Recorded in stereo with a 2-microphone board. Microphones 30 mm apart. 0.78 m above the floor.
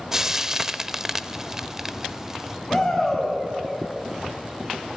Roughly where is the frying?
Centre.